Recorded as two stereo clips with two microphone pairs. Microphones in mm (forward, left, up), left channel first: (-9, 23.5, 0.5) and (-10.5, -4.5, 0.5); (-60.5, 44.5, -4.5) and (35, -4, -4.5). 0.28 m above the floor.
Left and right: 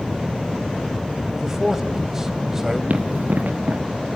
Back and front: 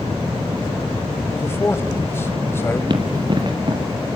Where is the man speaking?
155° right, 1.2 m.